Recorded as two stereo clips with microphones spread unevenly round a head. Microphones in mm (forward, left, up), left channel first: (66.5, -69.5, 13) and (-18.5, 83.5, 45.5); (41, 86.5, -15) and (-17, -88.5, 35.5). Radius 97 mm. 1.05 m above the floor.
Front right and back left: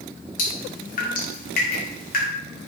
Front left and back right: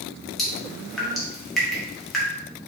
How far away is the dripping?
About 1.3 m.